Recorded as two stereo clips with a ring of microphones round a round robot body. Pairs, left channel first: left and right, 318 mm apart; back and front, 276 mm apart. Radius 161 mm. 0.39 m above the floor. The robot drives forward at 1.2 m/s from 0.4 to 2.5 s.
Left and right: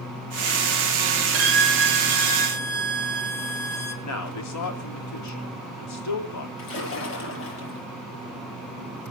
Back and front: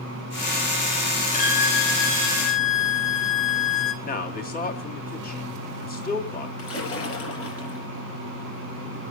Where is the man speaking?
125° left, 3 m.